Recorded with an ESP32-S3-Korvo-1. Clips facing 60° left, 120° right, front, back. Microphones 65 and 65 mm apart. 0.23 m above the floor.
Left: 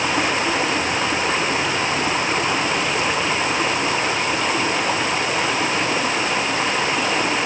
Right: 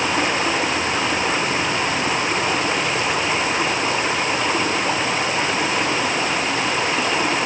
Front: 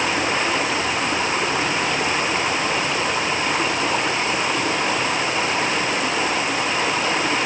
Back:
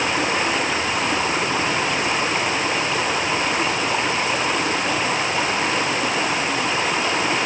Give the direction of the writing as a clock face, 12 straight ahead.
I don't hear writing.